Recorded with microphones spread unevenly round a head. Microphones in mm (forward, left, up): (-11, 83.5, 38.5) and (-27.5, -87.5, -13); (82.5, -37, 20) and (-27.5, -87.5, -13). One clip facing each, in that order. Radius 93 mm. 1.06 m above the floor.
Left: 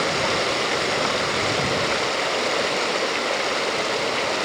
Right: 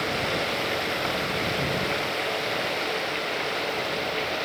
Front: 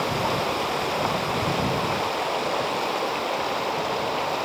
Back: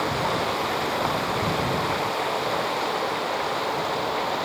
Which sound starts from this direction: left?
Running water, at 0.0 s.